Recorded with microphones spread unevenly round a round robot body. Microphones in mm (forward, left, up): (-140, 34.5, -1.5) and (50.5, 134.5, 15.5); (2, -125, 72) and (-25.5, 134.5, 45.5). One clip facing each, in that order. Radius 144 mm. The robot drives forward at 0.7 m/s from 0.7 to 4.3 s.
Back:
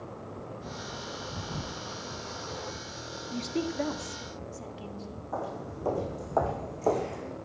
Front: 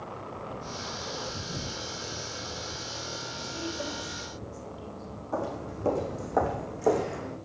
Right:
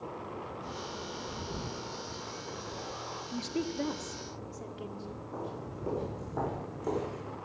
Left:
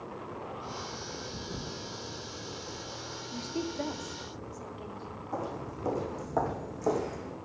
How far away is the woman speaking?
About 1.1 m.